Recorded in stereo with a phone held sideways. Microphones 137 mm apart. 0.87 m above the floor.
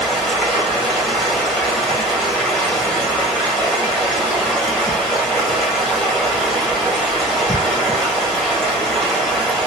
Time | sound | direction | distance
0.0 | running water | 5° left (ahead or behind) | 1.8 m